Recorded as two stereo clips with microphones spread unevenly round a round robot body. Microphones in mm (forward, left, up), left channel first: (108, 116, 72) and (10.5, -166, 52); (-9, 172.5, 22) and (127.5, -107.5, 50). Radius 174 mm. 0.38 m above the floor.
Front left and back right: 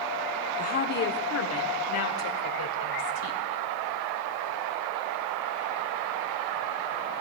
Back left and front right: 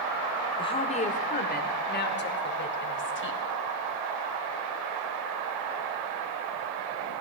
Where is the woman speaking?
85° left, 0.9 m; by 3.4 s 75° left, 2.0 m.